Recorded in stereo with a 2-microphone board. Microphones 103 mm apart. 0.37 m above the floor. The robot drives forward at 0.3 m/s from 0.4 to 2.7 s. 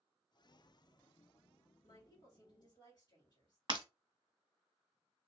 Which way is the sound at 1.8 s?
45° left (ahead or behind).